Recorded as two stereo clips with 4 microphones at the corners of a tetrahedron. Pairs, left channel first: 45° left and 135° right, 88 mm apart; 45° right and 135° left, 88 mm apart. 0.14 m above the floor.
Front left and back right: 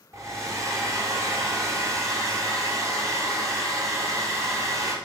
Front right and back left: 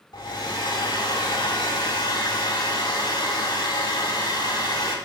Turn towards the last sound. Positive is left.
turn(degrees=-80)